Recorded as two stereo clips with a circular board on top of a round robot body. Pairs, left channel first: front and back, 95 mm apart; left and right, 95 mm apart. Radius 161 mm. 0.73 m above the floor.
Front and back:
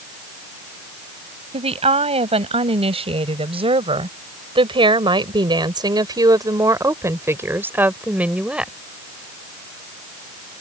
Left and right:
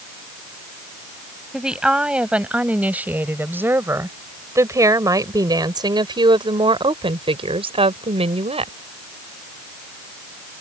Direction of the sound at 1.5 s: 175° right.